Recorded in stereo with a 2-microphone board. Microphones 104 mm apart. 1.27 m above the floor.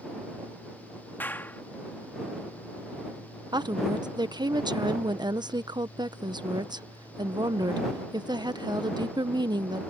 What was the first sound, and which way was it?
A clap, 20° left (ahead or behind).